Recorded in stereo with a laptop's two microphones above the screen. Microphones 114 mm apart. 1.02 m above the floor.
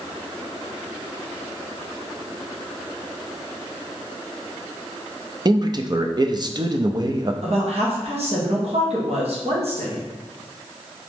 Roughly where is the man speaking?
Right.